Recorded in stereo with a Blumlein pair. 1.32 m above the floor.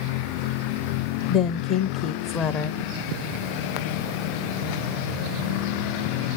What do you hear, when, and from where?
1.3 s a woman speaking: 35° left, 0.8 m